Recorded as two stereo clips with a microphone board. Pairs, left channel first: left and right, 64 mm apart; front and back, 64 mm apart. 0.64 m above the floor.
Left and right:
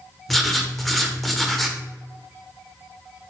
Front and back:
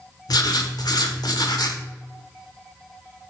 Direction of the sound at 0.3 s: Straight ahead.